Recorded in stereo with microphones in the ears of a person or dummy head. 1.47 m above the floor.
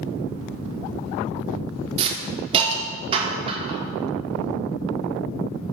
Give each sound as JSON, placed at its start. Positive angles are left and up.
{"t": 2.0, "sound": "a hiss", "side_deg": -30, "distance_m": 0.8}